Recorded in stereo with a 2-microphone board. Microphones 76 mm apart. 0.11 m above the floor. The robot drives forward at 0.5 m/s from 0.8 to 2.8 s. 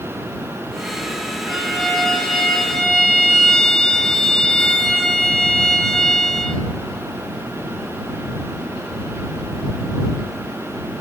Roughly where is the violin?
Centre.